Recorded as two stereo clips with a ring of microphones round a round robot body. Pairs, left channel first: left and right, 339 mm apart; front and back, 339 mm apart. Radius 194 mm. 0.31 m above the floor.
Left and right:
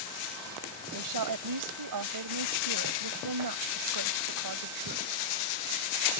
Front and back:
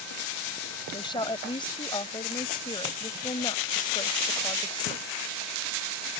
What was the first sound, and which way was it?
A woman speaking, 75° right.